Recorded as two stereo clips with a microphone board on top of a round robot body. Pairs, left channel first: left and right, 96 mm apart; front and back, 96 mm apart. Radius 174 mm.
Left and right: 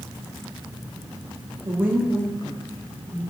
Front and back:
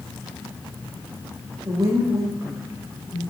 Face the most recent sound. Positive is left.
turn(degrees=105)